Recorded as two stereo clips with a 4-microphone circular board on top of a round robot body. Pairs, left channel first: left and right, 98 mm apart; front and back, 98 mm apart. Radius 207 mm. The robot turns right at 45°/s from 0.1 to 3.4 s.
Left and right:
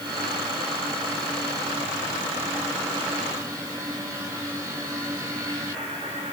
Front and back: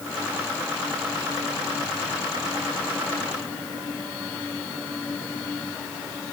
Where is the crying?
No crying in this recording.